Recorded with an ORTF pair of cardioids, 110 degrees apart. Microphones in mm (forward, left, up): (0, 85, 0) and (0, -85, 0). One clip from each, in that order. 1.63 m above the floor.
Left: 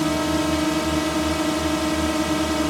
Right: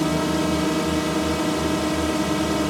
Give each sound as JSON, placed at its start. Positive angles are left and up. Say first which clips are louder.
{"t": 0.0, "sound": "a drone", "louder": "left 1 dB", "azimuth_deg": 10}